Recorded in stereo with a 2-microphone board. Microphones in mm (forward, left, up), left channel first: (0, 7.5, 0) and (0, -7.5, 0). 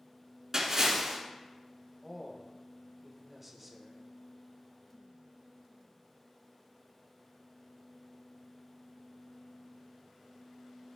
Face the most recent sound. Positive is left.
turn(degrees=-10)  # may be behind; listen again after turning